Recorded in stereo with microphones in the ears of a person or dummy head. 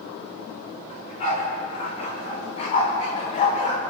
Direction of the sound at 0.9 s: 40° left (ahead or behind).